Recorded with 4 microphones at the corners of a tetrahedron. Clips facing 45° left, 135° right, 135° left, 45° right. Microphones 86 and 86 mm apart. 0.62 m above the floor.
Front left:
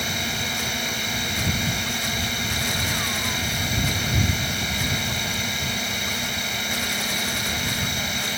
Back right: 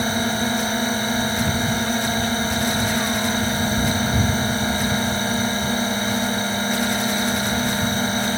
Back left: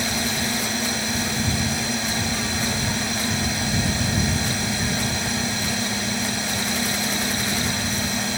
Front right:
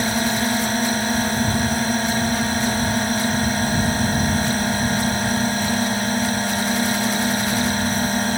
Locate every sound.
0.0 s a drone: 85° right